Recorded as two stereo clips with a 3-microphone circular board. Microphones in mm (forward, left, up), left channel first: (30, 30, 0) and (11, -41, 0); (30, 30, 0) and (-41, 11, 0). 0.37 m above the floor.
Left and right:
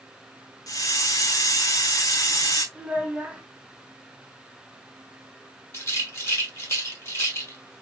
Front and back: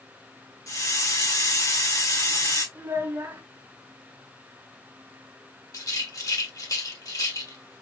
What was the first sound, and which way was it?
A hiss, 50° left.